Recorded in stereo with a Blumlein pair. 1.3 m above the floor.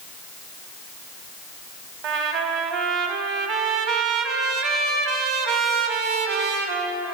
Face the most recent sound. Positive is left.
turn(degrees=-35)